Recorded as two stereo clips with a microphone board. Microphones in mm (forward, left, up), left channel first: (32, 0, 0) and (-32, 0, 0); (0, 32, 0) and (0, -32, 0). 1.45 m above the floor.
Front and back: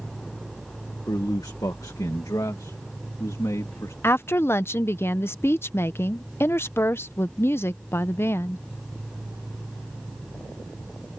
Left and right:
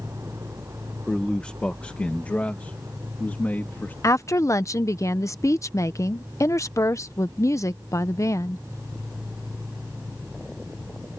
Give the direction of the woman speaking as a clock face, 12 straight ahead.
10 o'clock.